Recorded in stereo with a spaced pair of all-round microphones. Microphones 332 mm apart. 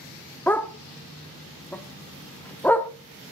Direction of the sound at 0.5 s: 5° left (ahead or behind).